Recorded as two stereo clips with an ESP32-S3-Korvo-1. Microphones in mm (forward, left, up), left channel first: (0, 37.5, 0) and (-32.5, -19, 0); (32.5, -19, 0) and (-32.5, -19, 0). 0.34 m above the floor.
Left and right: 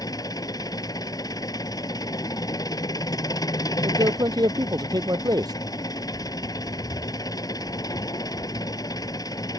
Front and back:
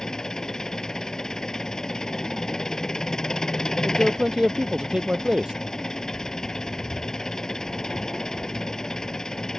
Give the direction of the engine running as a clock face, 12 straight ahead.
9 o'clock.